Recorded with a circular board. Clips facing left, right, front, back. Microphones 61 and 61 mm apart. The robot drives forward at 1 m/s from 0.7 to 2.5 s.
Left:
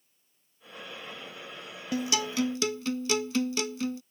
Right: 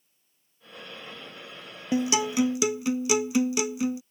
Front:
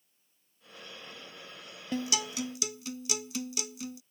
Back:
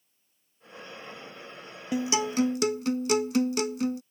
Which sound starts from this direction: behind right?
A guitar, at 1.9 s.